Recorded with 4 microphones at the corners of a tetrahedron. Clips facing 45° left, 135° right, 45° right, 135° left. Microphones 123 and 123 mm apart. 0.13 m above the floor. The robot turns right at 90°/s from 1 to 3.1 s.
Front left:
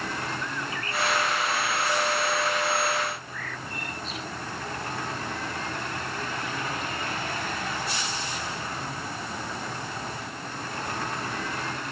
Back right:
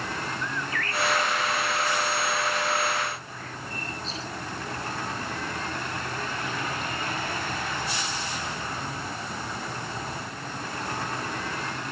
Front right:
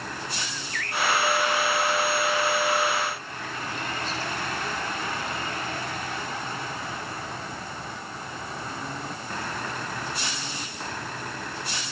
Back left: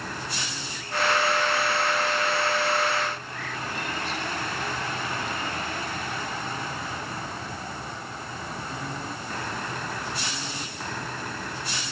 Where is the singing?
No singing in this recording.